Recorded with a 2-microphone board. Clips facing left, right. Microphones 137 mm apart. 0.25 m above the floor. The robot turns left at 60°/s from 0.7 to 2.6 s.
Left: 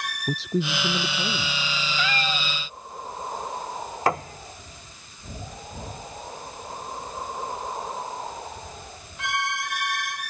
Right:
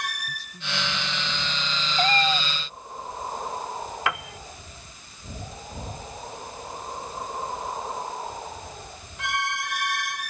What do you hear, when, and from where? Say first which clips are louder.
0.3 s a man speaking: left 12 dB; 85° left; by 1.7 s 25° left
2.0 s a cat meowing: right 7 dB; 135° right; by 2.5 s 170° right
4.1 s a piano: left 7 dB; 35° left (ahead or behind)